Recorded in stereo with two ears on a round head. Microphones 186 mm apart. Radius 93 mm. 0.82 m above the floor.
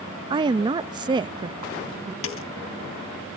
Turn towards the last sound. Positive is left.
turn(degrees=70)  # may be behind; listen again after turning